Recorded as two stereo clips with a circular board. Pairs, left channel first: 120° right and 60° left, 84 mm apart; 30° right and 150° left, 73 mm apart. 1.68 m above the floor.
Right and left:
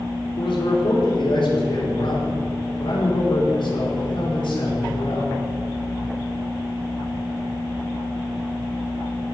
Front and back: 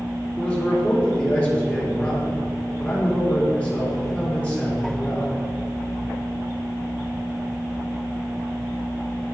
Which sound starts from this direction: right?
A man speaking, at 0.4 s.